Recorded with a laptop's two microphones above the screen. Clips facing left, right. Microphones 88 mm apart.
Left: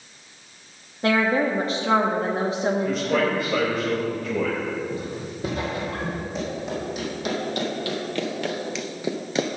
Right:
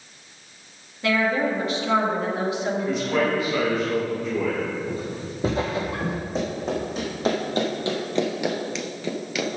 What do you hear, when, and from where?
1.0 s a woman speaking: 35° left (ahead or behind), 1.2 m
2.9 s a man speaking: 55° left (ahead or behind), 4 m
4.9 s footsteps: 30° right (ahead or behind), 2 m; by 6.2 s 15° right (ahead or behind), 1.4 m
6.3 s running footsteps: 35° right (ahead or behind), 3.5 m; by 9.5 s 35° left (ahead or behind), 1.1 m